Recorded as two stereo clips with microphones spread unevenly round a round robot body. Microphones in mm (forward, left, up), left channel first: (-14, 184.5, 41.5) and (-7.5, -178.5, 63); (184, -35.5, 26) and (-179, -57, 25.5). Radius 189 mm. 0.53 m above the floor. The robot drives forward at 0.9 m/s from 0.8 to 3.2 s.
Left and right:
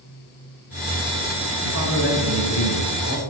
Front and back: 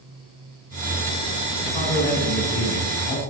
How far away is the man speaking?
About 5 m.